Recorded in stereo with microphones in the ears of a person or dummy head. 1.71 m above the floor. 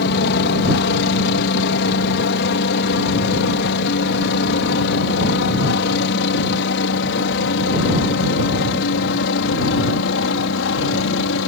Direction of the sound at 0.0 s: 60° left (ahead or behind).